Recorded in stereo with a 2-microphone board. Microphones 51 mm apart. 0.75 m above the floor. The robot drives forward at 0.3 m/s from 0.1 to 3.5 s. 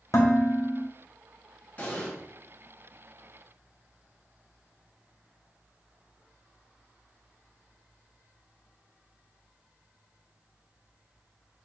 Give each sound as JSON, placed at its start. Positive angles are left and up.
{"t": 0.1, "sound": "dishes clattering", "side_deg": 75, "distance_m": 0.7}
{"t": 1.8, "sound": "an explosion", "side_deg": 25, "distance_m": 1.4}